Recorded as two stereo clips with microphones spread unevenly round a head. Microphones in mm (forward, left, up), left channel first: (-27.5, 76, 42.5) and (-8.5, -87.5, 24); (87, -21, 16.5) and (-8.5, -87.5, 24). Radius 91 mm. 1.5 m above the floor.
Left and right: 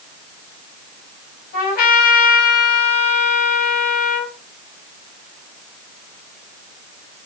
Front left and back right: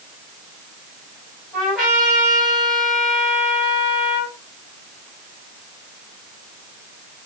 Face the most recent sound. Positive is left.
turn(degrees=130)